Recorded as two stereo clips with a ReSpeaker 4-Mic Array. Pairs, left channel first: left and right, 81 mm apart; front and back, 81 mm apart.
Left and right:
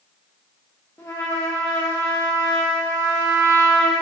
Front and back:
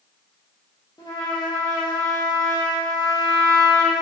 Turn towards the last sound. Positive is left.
turn(degrees=30)